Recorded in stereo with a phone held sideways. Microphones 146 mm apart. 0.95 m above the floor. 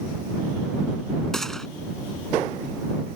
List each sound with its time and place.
1.3 s a gunshot: 5° left (ahead or behind)